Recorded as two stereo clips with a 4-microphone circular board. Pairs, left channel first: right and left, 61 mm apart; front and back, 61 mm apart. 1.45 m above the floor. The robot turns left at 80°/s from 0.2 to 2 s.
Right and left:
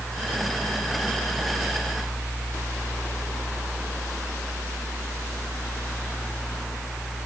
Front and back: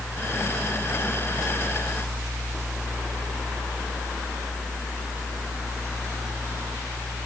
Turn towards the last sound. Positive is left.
No sound to turn to.